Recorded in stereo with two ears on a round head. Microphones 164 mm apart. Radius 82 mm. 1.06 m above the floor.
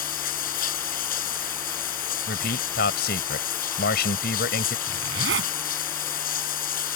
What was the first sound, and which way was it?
Running water, 50° left (ahead or behind).